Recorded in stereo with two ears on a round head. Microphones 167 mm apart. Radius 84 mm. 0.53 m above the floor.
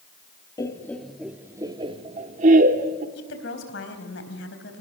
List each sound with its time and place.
0.6 s laughter: 20° left (ahead or behind), 1.0 m; by 3.0 s 50° right (ahead or behind), 1.6 m
3.1 s a woman speaking: 65° left (ahead or behind), 4 m